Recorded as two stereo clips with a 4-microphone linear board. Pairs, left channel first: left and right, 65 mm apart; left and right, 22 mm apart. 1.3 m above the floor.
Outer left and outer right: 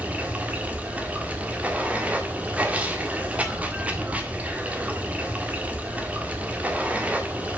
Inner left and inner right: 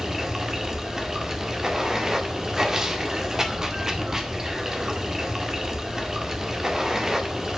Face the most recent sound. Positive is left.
turn(degrees=-20)  # may be behind; listen again after turning